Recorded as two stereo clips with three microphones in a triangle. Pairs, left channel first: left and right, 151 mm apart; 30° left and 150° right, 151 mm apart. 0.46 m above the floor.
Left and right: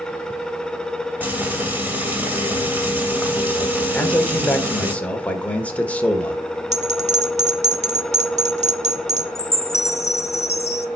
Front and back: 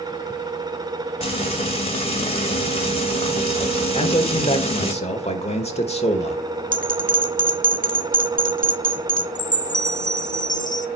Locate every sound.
1.2 s frying: 15° right, 2.5 m
3.9 s a man speaking: 15° left, 1.3 m
6.7 s a bell: 130° right, 1.0 m
9.3 s a chime: 50° left, 0.6 m